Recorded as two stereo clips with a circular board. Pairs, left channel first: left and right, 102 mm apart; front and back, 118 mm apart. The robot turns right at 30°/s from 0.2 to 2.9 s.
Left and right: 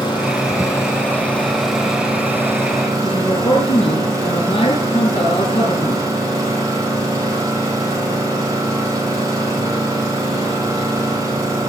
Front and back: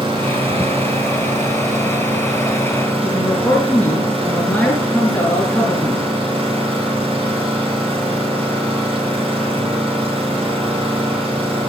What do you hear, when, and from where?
0.0 s an engine running: 130° left, 8 m; by 11.7 s 145° right, 8 m
3.0 s a man speaking: 75° left, 6 m